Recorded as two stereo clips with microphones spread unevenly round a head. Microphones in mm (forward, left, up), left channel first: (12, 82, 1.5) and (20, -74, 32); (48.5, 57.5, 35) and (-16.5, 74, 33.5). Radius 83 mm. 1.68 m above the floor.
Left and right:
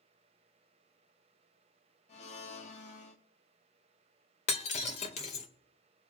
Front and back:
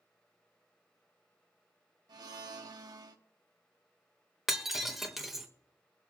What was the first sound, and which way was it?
A blender, 150° left.